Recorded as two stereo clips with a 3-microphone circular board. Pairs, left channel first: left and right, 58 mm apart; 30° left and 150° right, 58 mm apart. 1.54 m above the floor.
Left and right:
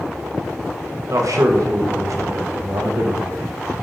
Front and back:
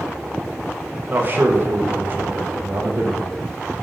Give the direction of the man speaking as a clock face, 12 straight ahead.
3 o'clock.